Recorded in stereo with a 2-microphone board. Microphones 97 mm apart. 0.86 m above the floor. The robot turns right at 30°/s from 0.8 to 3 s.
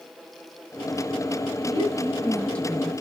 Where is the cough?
I don't hear a cough.